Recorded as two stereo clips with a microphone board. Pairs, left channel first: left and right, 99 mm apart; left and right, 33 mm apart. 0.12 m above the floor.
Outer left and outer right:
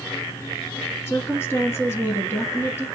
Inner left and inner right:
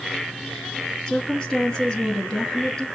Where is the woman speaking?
25° left (ahead or behind), 1.1 m.